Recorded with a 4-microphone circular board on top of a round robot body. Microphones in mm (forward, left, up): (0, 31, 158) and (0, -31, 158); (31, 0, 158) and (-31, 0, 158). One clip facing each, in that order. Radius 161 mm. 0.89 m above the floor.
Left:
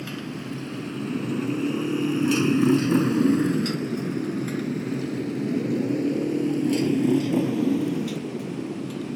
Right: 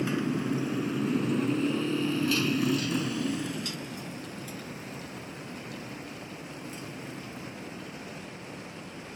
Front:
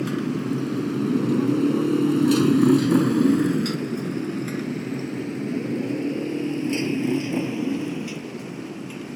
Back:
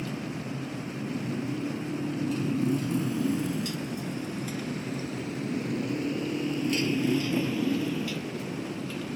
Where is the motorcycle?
20° right; by 9.2 s 75° left.